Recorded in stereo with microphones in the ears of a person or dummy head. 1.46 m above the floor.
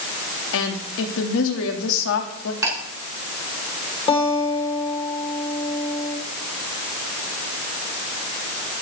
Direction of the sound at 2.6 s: 15° right (ahead or behind).